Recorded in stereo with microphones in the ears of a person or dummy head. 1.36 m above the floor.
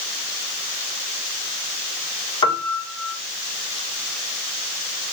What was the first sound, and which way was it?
A piano, 20° left (ahead or behind).